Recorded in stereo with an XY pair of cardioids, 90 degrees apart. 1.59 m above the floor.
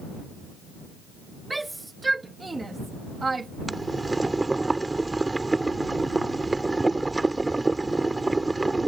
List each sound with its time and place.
1.5 s a shout: 15° right; by 3.5 s 30° right
3.7 s boiling: 20° right